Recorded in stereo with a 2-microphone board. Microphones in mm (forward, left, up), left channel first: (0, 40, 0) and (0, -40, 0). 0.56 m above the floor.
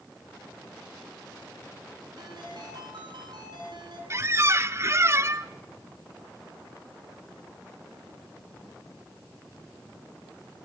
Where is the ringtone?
65° right (ahead or behind), 4.5 m.